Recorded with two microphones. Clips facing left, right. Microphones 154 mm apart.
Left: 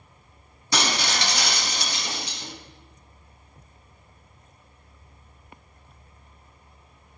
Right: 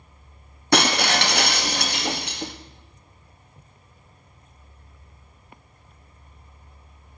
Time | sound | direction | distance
0.7 | breaking glass | 60° right (ahead or behind) | 0.5 m